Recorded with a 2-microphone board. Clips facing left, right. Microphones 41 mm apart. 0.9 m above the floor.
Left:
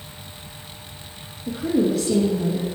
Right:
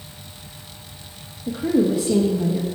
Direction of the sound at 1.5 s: 20° right (ahead or behind).